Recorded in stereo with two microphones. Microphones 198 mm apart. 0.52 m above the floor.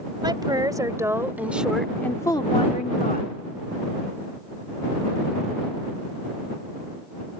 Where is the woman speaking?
20° right (ahead or behind); by 3.3 s 45° left (ahead or behind).